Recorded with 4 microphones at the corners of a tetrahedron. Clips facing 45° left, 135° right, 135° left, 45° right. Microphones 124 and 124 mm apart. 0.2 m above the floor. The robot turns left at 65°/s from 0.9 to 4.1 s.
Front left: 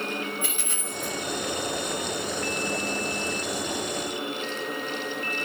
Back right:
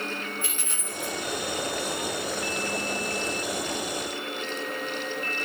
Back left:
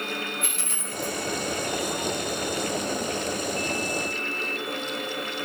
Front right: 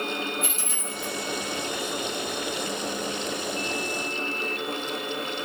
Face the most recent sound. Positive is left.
turn(degrees=-85)